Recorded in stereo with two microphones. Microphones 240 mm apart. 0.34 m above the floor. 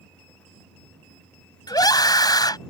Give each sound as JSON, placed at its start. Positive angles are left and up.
{"t": 1.7, "sound": "a scream", "side_deg": 15}